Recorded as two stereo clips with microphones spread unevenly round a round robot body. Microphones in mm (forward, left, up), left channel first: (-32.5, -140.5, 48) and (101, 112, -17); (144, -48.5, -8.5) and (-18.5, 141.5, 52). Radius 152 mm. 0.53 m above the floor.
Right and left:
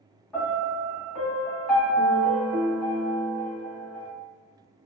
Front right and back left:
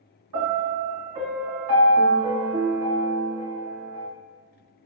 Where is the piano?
145° left, 1.8 m.